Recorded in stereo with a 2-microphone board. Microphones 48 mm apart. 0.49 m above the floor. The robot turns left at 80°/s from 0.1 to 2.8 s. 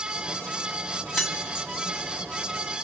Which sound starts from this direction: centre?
Keys jangling, at 1.1 s.